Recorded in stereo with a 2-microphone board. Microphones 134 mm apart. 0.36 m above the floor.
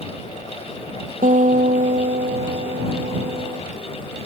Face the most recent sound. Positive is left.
turn(degrees=-85)